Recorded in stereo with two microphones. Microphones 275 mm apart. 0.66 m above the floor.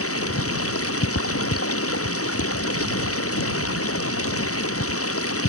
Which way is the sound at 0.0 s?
55° left (ahead or behind).